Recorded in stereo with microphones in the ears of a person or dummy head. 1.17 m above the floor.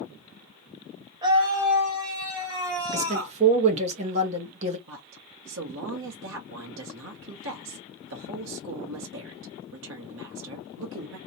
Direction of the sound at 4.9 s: 60° right (ahead or behind).